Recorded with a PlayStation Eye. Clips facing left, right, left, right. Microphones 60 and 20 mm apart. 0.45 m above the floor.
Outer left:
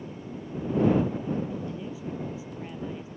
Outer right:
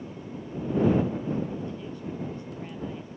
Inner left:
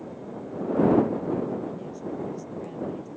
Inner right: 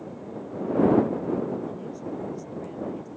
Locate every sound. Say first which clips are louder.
1.7 s a woman speaking: outer left 1 dB, even; 5° left (ahead or behind)